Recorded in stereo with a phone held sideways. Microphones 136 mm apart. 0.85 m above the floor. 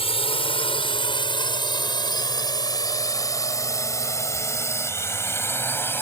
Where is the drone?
45° left (ahead or behind); by 6.0 s 15° left (ahead or behind).